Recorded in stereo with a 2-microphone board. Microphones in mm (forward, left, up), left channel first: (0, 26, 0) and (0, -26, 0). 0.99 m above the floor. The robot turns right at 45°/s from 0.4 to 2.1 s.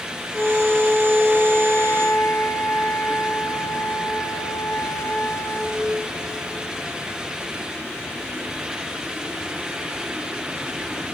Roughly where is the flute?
Ahead.